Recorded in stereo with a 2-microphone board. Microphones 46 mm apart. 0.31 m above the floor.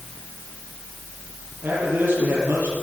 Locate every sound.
1.6 s a man speaking: 45° right (ahead or behind), 9.5 m